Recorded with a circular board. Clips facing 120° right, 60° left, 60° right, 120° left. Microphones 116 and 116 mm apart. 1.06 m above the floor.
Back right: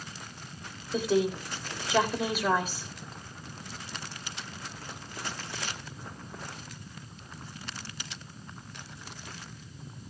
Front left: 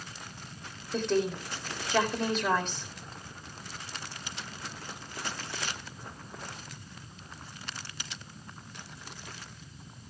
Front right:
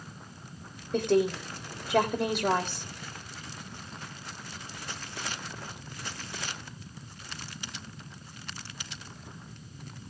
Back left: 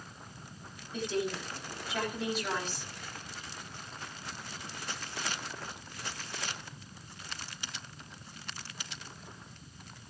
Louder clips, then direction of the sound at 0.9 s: Back right 2 dB, front right 9 dB; 35° right.